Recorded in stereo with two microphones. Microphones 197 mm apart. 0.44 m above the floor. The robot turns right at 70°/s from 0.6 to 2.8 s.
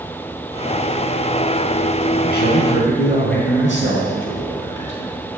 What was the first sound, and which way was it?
A man speaking, 50° left.